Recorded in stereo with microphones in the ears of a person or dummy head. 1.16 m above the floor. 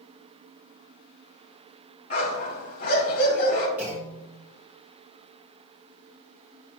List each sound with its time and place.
2.1 s a dog barking: 50° left (ahead or behind), 3 m
3.8 s a clunk: 5° right (ahead or behind), 2.5 m